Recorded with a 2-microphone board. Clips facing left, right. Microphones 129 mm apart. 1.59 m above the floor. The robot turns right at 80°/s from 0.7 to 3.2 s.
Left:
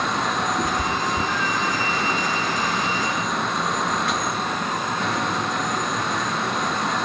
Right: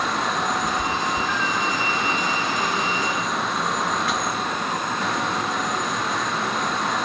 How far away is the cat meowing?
About 2.0 m.